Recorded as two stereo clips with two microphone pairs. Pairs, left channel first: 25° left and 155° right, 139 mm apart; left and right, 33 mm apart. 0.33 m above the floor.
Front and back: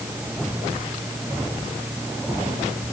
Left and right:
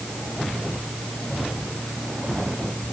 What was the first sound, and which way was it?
Only background noise.